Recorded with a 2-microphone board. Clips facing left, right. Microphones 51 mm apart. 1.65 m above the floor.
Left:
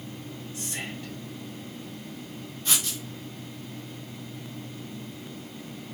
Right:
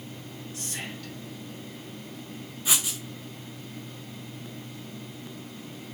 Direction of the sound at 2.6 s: 10° right (ahead or behind).